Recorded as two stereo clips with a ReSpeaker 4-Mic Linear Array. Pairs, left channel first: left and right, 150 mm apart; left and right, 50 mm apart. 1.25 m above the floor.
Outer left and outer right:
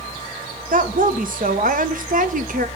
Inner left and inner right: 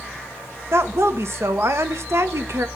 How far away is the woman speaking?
About 1.1 m.